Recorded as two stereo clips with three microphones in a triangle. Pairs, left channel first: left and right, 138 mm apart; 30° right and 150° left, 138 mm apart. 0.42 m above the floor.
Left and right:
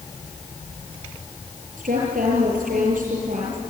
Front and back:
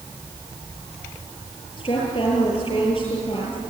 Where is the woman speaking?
85° right, 7.5 m.